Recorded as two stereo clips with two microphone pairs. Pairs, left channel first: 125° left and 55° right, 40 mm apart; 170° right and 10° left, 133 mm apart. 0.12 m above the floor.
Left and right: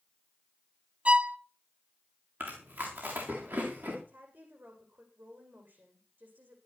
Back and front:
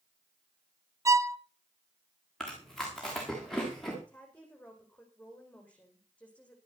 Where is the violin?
40° right, 0.5 m.